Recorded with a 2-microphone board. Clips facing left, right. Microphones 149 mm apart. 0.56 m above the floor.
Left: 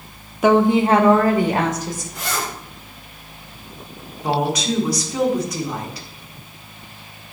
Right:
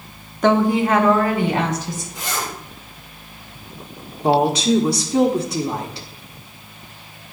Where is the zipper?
65° left (ahead or behind), 4 m.